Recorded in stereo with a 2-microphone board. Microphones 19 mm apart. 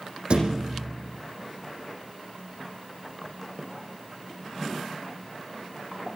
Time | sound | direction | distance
0.3 | a thud | 60° right (ahead or behind) | 7.5 m